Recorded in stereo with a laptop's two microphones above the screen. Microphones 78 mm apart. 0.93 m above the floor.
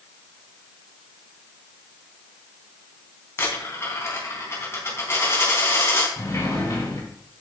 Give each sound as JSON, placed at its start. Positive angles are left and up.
{"t": 3.4, "sound": "a dropped coin", "side_deg": 30, "distance_m": 3.5}
{"t": 6.2, "sound": "a sliding door", "side_deg": 40, "distance_m": 3.0}